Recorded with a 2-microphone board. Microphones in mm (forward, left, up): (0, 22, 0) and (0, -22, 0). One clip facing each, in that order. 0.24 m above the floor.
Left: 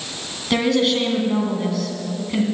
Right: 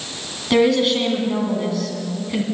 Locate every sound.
0.5 s a woman speaking: centre (ahead or behind), 2.5 m